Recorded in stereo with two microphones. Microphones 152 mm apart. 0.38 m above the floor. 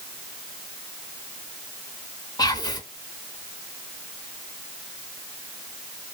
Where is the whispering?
25° left (ahead or behind), 0.8 m.